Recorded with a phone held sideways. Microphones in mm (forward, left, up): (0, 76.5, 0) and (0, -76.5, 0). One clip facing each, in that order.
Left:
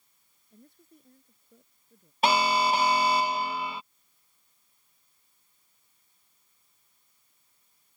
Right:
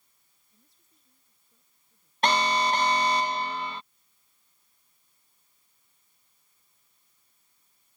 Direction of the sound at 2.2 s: 5° left (ahead or behind).